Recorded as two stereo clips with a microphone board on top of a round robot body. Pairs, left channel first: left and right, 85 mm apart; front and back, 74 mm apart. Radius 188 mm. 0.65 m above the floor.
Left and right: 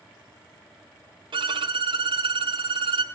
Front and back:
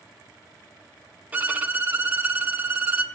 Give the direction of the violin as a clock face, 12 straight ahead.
4 o'clock.